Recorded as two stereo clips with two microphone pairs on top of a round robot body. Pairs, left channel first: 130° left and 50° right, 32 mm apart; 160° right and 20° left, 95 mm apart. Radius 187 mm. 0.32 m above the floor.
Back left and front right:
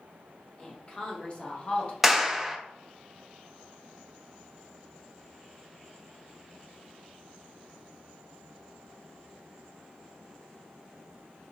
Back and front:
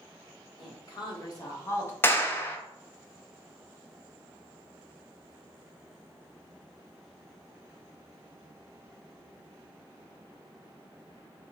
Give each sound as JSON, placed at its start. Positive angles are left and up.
{"t": 0.6, "sound": "a woman speaking", "azimuth_deg": -165, "distance_m": 1.6}
{"t": 2.0, "sound": "a clap", "azimuth_deg": -105, "distance_m": 0.8}